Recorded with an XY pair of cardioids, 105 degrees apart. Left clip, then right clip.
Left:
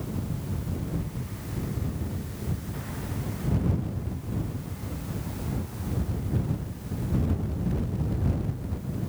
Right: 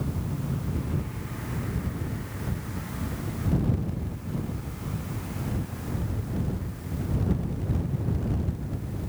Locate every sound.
Only background noise.